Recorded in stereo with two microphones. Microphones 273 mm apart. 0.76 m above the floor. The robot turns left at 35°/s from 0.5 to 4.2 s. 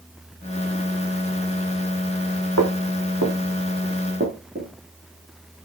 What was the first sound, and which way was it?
Footsteps, 75° right (ahead or behind).